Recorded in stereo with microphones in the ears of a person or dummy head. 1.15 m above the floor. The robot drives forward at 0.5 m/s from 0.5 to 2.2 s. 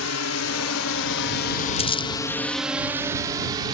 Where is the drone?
75° left (ahead or behind); by 3.7 s 25° right (ahead or behind).